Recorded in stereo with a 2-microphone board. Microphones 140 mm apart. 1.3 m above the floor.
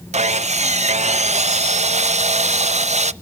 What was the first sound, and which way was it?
Sawing, 50° right (ahead or behind).